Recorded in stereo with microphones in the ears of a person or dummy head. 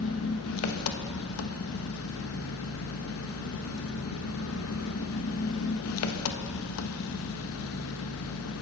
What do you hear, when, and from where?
0.0 s an engine running: 80° left, 1.0 m